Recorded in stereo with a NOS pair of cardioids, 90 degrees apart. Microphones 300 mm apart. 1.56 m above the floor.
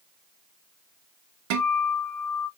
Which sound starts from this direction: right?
A guitar, at 1.5 s.